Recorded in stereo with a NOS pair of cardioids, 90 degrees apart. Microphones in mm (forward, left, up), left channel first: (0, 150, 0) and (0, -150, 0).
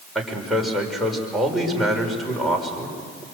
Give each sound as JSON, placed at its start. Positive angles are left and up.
{"t": 0.1, "sound": "a man speaking", "azimuth_deg": 0, "distance_m": 5.5}